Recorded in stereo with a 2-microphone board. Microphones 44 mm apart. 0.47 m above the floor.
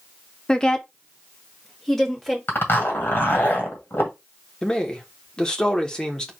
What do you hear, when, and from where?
0.5 s a woman speaking: 20° left (ahead or behind), 0.8 m; by 2.4 s 5° left (ahead or behind), 1.8 m
2.5 s a zipper: 55° left (ahead or behind), 2.5 m
4.6 s a man speaking: 15° left (ahead or behind), 1.2 m